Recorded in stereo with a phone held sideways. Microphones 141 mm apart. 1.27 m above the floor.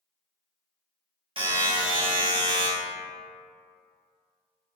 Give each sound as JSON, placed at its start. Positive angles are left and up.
{"t": 1.4, "sound": "a buzzer", "side_deg": -40, "distance_m": 0.9}